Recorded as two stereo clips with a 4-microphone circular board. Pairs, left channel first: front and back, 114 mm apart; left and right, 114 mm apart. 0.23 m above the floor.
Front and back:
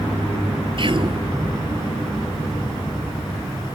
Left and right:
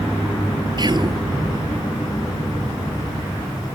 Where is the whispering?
140° right.